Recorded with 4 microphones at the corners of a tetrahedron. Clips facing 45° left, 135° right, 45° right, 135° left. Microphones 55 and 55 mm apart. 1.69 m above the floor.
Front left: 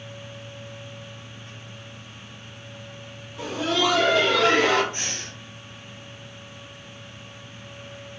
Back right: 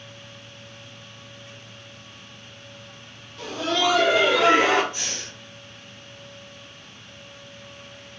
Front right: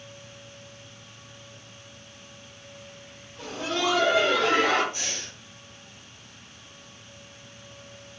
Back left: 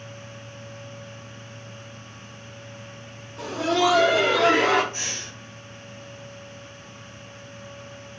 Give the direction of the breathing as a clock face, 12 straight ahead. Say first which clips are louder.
Front left 1 dB, back left 2 dB; 9 o'clock.